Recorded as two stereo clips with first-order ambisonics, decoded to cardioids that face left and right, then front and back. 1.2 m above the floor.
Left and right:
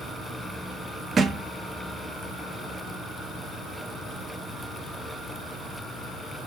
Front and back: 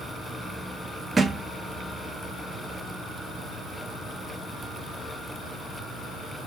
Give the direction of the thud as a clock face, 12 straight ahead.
4 o'clock.